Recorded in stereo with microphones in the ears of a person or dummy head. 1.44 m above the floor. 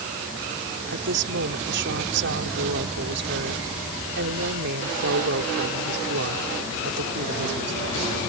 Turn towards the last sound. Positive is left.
turn(degrees=-60)  # may be behind; listen again after turning